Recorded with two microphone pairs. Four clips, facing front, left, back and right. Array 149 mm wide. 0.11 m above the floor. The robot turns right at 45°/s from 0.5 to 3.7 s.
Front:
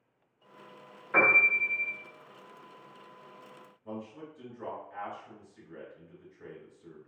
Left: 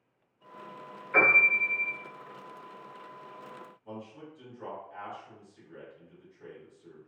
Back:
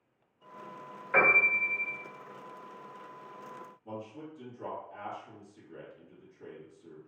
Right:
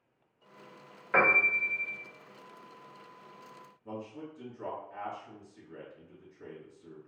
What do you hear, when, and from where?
1.1 s a piano: 90° right, 1.0 m; by 2.0 s 55° right, 1.0 m
3.9 s a man speaking: 35° right, 1.9 m